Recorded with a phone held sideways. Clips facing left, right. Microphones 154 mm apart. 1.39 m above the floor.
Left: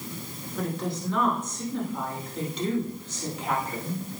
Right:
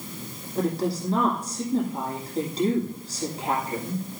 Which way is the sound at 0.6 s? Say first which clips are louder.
Right 5 dB; 35° right (ahead or behind).